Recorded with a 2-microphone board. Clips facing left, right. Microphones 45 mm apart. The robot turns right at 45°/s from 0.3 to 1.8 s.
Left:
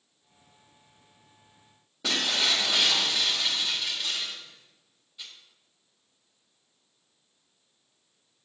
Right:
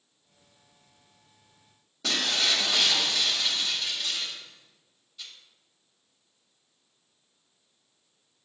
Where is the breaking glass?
15° left (ahead or behind), 2.5 m.